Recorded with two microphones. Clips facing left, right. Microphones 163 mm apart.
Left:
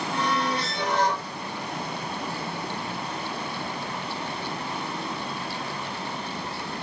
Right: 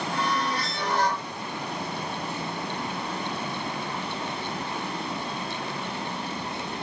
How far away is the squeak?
About 1.1 m.